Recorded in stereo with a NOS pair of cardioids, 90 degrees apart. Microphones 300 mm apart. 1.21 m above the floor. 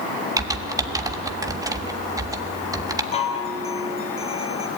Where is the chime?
20° left, 4.5 m.